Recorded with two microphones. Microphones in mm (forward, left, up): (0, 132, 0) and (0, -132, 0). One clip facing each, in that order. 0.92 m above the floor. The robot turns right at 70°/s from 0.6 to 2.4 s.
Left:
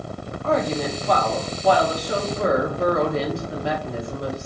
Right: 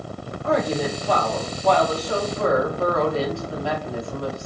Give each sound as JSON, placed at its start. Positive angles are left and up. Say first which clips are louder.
{"t": 0.4, "sound": "a woman speaking", "louder": "even", "side_deg": -15, "distance_m": 0.8}